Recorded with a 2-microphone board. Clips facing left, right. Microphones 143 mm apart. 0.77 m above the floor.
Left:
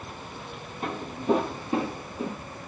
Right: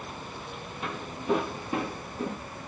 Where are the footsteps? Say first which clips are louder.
Left 5 dB; 45° left (ahead or behind), 1.7 m; by 2.4 s centre (ahead or behind), 0.9 m.